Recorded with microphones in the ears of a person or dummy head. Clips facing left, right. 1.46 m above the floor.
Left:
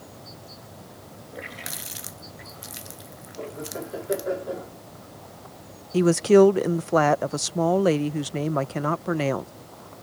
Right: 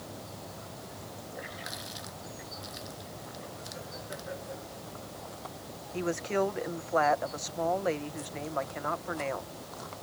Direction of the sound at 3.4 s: 75° left (ahead or behind).